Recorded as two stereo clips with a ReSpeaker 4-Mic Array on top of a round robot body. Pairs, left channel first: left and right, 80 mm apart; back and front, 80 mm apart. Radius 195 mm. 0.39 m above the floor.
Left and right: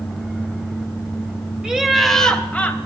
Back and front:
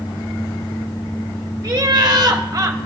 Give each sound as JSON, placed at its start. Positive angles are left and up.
{"t": 1.6, "sound": "laughter", "azimuth_deg": -15, "distance_m": 1.1}